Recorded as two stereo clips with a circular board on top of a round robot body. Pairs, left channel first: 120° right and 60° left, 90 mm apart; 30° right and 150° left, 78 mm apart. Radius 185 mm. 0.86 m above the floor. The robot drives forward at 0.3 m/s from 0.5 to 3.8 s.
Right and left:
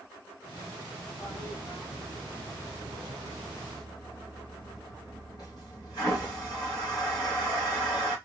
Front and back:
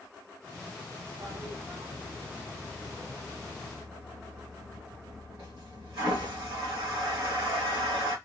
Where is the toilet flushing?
160° right, 2 m; by 8.2 s 165° right, 3 m.